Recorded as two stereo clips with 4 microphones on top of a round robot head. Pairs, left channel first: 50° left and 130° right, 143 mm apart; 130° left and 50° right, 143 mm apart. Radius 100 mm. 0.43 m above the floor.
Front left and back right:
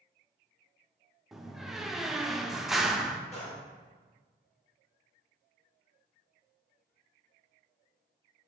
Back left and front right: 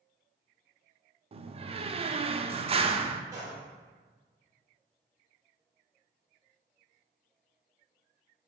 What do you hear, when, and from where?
1.3 s a door slam: 45° right, 0.7 m
3.3 s a gunshot: 15° left, 3 m